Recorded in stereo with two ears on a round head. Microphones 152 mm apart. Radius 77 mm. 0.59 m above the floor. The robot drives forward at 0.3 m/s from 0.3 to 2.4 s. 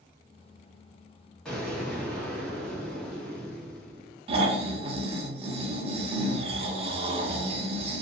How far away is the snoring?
About 0.7 m.